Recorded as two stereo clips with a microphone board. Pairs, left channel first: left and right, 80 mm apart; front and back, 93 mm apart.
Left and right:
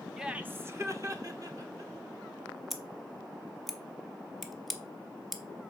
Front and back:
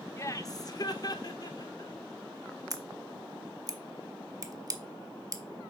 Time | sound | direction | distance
0.2 | laughter | 5° right | 0.6 m
2.7 | scissors | 175° left | 0.8 m